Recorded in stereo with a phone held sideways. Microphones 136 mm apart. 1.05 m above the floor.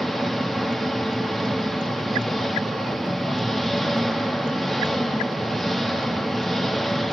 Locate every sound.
0.0 s an engine running: centre (ahead or behind), 1.6 m